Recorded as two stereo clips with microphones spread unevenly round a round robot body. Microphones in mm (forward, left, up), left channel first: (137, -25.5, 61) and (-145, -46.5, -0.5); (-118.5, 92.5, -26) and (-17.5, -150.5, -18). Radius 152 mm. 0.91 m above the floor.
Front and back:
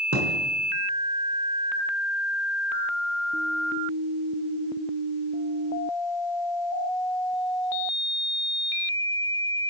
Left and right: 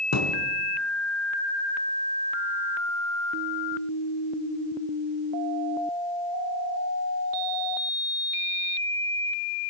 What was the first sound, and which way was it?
A thud, 135° left.